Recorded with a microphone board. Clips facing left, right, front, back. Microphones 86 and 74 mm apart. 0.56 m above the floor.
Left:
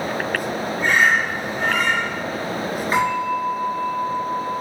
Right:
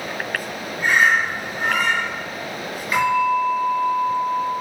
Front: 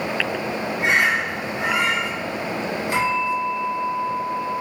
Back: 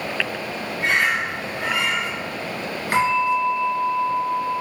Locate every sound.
0.8 s a bird: 40° right, 1.2 m
2.9 s a bell: 150° left, 1.6 m